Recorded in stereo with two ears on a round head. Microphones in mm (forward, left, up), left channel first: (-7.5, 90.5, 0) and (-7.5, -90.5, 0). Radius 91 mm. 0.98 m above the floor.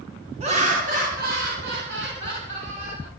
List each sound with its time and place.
0.4 s laughter: 30° right (ahead or behind), 0.9 m; by 3.1 s 60° right (ahead or behind), 2 m